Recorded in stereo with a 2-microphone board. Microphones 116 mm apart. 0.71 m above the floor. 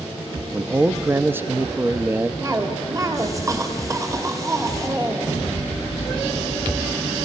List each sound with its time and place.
0.5 s a man speaking: 15° right (ahead or behind), 0.5 m
2.4 s a cough: 25° right (ahead or behind), 1.9 m